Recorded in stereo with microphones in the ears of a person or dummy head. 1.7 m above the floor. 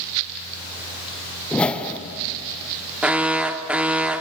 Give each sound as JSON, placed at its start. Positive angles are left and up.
{"t": 1.5, "sound": "a whoosh", "side_deg": 5, "distance_m": 0.9}
{"t": 3.0, "sound": "an alarm", "side_deg": -5, "distance_m": 0.7}